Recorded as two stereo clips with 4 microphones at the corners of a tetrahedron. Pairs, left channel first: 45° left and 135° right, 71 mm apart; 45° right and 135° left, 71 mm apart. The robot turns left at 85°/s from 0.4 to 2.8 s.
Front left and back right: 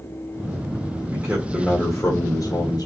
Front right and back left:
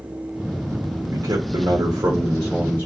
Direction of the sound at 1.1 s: 165° left.